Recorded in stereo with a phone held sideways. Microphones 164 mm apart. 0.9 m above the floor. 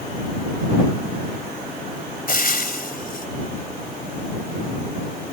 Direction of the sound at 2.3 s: 65° left (ahead or behind).